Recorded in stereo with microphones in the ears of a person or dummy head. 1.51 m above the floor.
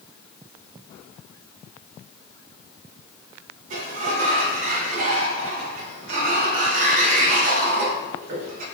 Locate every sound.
3.7 s a sliding door: 50° right (ahead or behind), 1.0 m